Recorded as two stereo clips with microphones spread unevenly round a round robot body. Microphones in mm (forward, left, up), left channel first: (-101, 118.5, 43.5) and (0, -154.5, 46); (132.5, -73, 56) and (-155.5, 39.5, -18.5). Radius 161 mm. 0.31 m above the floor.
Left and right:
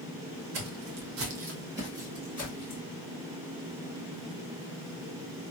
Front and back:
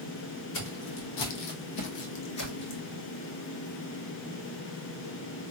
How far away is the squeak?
I don't hear a squeak.